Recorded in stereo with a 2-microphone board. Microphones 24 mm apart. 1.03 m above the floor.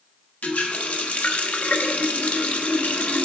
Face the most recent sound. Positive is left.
turn(degrees=70)  # may be behind; listen again after turning